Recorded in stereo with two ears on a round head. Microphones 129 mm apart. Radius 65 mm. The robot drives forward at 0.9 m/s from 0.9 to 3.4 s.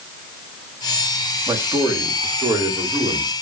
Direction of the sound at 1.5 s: 20° right (ahead or behind).